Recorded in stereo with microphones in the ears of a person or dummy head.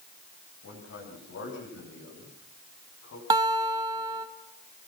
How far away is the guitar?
About 1.3 m.